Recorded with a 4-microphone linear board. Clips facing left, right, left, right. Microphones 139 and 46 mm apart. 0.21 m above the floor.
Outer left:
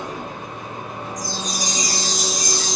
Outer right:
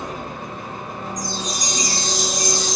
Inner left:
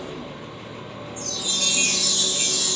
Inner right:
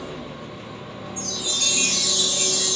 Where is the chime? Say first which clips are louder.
Even, even; 5° left (ahead or behind), 0.6 m.